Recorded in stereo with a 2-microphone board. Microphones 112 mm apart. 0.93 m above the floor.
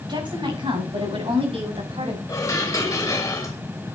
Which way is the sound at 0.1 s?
45° right (ahead or behind).